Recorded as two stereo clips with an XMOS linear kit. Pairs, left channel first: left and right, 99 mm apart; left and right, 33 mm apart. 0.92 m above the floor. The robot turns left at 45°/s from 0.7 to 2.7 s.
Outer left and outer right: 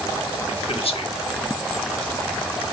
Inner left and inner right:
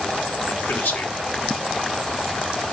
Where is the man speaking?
75° left (ahead or behind), 1.4 m; by 1.1 s 55° left (ahead or behind), 1.4 m.